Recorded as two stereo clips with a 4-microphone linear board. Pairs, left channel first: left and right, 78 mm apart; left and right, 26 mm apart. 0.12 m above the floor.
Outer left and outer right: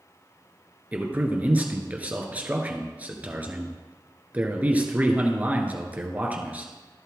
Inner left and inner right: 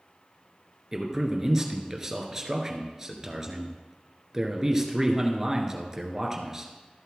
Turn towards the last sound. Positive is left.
turn(degrees=-20)  # may be behind; listen again after turning